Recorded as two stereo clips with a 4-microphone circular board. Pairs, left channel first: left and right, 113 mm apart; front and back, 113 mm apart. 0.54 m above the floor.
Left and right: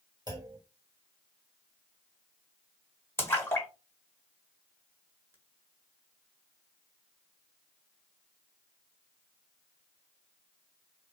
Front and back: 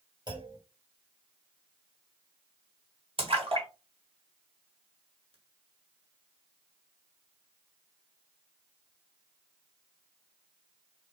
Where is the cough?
I don't hear a cough.